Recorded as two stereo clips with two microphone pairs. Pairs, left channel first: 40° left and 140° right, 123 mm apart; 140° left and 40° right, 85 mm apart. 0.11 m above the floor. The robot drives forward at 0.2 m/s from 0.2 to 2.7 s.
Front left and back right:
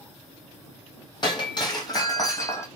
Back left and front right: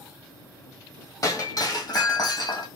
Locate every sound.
1.2 s breaking glass: 90° left, 1.0 m; by 2.7 s 105° left, 1.1 m